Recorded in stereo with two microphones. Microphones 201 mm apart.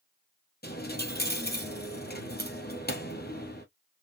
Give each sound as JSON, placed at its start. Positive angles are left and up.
{"t": 0.6, "sound": "a dropped coin", "side_deg": 50, "distance_m": 1.4}